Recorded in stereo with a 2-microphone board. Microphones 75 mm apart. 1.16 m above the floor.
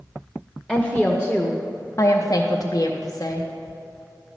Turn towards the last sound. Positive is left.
turn(degrees=50)  # may be behind; listen again after turning